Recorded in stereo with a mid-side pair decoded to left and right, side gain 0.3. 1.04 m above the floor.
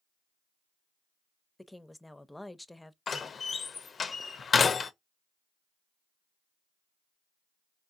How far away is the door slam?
About 0.5 m.